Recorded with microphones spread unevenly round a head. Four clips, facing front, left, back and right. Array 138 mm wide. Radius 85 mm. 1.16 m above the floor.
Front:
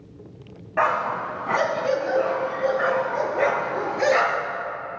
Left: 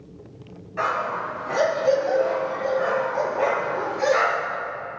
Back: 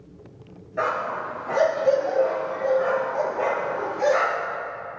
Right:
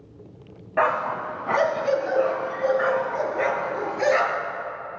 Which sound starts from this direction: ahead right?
A dog barking, at 0.8 s.